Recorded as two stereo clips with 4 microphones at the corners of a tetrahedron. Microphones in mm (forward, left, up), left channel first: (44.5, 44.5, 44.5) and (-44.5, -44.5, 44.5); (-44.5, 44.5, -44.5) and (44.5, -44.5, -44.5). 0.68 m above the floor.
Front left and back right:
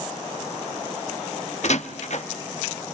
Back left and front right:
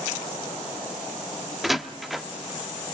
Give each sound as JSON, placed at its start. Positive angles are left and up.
{"t": 1.6, "sound": "a door slam", "azimuth_deg": 45, "distance_m": 0.9}